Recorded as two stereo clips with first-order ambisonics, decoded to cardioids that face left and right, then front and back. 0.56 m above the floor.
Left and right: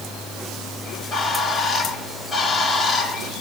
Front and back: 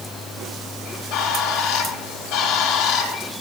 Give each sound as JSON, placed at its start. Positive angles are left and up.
{"t": 0.8, "sound": "a bird", "azimuth_deg": 15, "distance_m": 4.5}